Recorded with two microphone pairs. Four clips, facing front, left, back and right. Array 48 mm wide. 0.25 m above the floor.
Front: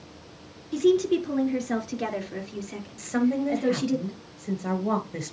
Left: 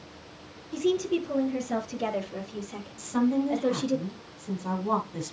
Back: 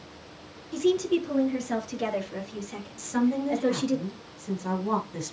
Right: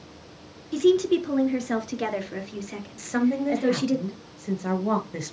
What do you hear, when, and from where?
0.7 s a woman speaking: 75° right, 3.5 m; by 4.0 s 85° right, 5.5 m
3.0 s a woman speaking: 65° right, 3.5 m